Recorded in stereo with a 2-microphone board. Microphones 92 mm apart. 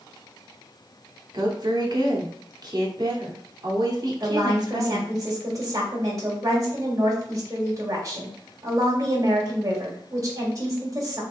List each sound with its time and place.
1.3 s a woman speaking: 50° right (ahead or behind), 1.0 m
4.2 s a woman speaking: 35° right (ahead or behind), 2 m